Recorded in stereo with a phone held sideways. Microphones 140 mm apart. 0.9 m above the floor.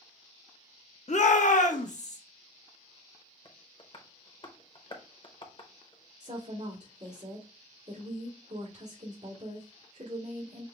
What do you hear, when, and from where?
1.1 s a shout: 55° left (ahead or behind), 0.6 m
3.5 s tapping: 40° left (ahead or behind), 0.8 m
6.2 s a woman speaking: 65° right (ahead or behind), 1.6 m